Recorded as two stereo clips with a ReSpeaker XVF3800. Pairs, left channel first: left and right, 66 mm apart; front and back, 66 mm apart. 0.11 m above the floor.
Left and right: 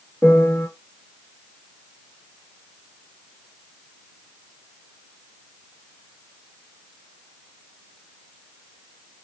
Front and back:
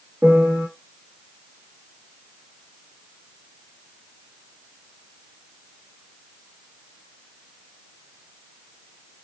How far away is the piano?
About 1.7 m.